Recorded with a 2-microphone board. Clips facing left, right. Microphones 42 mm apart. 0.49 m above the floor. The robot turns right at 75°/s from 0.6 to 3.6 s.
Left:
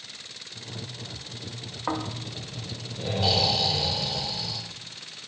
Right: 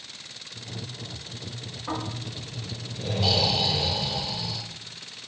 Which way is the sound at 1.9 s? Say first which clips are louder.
Left 2 dB; 65° left.